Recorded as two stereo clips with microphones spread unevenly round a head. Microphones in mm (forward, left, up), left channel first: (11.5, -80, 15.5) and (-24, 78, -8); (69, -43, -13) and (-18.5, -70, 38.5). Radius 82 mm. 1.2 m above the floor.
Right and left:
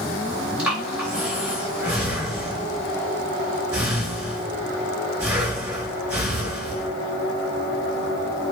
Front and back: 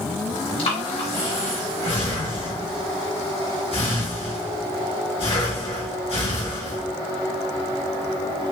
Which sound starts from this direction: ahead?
Breathing, at 0.6 s.